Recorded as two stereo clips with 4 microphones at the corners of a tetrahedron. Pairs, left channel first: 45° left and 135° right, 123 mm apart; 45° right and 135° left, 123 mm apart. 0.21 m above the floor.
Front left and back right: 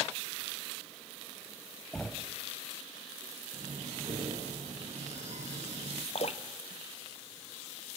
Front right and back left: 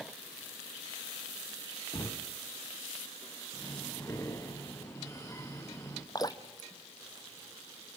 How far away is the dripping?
About 1.0 m.